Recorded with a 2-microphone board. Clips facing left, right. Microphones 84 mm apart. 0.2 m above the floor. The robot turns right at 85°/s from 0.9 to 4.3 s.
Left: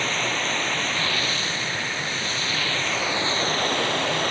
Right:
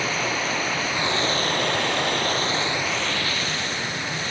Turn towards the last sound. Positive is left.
turn(degrees=115)